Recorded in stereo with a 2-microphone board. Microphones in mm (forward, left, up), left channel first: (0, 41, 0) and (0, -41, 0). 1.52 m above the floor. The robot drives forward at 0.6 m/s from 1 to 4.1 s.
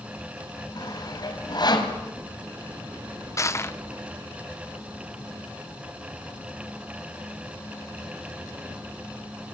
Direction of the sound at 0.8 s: 55° left (ahead or behind).